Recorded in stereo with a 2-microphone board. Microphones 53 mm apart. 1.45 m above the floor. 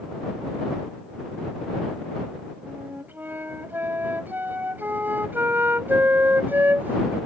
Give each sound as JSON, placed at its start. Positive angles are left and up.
{"t": 2.7, "sound": "a flute", "side_deg": -40}